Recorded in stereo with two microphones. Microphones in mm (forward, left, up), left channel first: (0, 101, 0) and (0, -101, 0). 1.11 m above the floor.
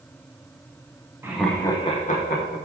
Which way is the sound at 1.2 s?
10° right (ahead or behind).